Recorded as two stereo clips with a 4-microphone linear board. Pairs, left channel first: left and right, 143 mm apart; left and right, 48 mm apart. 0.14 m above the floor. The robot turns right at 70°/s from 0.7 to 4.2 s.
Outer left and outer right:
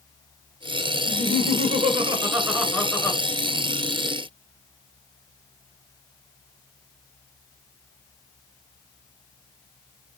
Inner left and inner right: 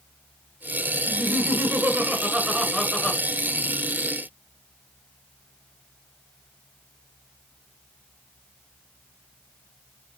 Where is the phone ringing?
I don't hear a phone ringing.